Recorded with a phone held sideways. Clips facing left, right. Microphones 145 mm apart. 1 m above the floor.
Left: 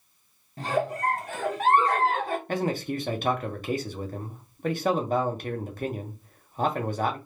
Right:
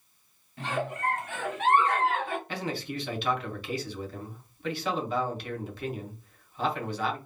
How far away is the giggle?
About 0.8 m.